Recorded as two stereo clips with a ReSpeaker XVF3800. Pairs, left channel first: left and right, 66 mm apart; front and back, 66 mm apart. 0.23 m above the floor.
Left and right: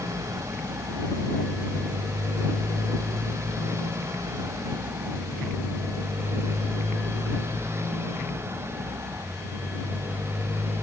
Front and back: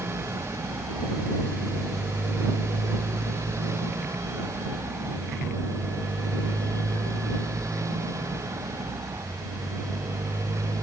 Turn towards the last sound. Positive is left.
turn(degrees=-140)